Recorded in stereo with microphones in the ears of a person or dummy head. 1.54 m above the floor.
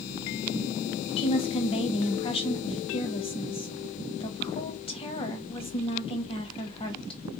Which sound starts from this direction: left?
A woman speaking, at 1.2 s.